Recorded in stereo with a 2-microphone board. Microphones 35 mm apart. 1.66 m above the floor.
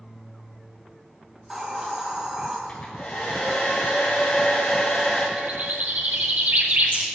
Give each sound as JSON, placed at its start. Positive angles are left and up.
{"t": 1.4, "sound": "a hiss", "side_deg": -20, "distance_m": 2.0}
{"t": 2.7, "sound": "a hair dryer", "side_deg": 35, "distance_m": 4.0}
{"t": 5.4, "sound": "a bird", "side_deg": -75, "distance_m": 1.8}